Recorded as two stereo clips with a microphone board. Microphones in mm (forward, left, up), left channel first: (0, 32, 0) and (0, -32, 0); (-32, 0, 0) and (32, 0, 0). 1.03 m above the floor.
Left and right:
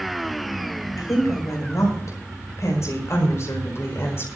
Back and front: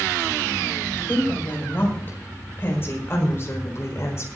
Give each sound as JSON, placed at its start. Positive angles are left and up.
{"t": 1.0, "sound": "a woman speaking", "azimuth_deg": 120, "distance_m": 5.5}